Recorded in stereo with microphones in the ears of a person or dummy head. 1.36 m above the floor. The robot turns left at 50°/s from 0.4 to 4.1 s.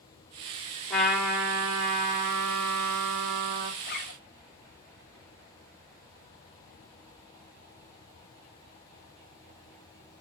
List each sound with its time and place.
0.9 s a trumpet: straight ahead, 3.5 m; by 3.7 s 140° right, 3.5 m
3.8 s a zipper: 45° left (ahead or behind), 0.8 m; by 4.2 s 60° left (ahead or behind), 0.8 m